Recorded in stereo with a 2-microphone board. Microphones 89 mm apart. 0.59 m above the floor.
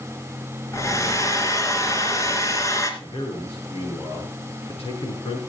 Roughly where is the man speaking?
Left.